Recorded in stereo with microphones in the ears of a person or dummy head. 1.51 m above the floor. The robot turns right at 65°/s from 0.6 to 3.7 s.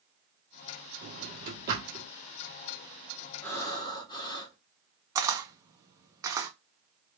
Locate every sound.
1.0 s a drawer: 55° right (ahead or behind), 1.5 m; by 2.1 s 45° right (ahead or behind), 1.5 m
3.4 s breathing: 5° left (ahead or behind), 0.9 m; by 4.5 s 25° left (ahead or behind), 0.9 m
5.2 s a camera shutter: 10° right (ahead or behind), 0.5 m